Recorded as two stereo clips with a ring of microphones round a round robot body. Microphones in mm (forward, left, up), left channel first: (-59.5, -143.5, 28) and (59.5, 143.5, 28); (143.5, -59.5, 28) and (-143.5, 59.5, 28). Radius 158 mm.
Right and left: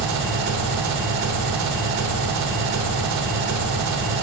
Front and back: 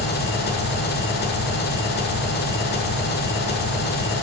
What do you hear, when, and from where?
0.0 s an engine running: 35° left, 1.2 m